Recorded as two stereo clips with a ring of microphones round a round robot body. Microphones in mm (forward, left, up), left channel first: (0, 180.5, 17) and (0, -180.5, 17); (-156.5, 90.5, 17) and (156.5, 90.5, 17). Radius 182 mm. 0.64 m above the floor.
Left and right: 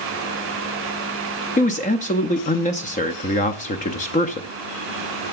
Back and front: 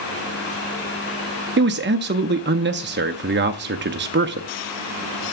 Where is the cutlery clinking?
No cutlery clinking in this recording.